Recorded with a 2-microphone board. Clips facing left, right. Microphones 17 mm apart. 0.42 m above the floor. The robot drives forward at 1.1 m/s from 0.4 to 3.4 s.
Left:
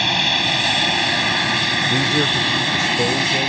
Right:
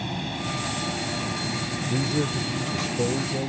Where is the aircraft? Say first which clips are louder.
Left 14 dB; 60° left (ahead or behind); by 3.5 s 65° left (ahead or behind).